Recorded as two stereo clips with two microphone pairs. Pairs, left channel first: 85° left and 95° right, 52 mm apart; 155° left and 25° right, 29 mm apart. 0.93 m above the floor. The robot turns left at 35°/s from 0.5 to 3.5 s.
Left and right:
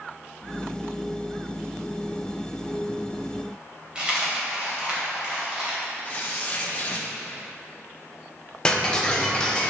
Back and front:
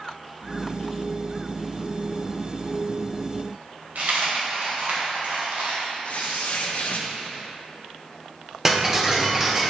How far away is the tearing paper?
About 1.2 m.